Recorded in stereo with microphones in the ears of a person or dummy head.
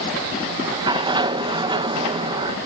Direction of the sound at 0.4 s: 25° right (ahead or behind).